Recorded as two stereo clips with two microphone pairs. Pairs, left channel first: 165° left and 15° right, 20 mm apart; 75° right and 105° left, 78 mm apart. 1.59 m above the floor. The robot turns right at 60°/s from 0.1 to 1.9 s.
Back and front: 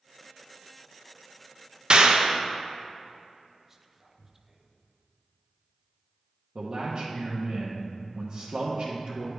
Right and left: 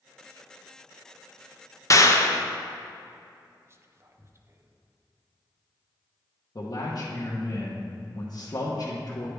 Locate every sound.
1.9 s a clap: 40° right, 0.6 m
3.6 s whispering: 55° left, 0.6 m
6.5 s a man speaking: 40° right, 0.9 m